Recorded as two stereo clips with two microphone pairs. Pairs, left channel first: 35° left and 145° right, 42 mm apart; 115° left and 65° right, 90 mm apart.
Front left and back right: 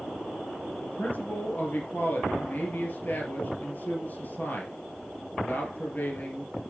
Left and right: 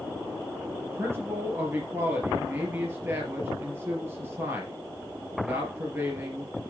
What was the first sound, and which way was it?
A man speaking, 5° right.